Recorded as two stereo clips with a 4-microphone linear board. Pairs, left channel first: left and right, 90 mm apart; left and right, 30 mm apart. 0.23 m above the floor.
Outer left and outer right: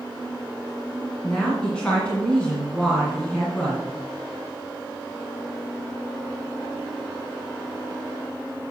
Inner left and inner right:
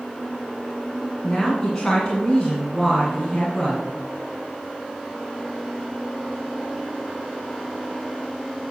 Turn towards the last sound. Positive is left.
turn(degrees=10)  # may be behind; listen again after turning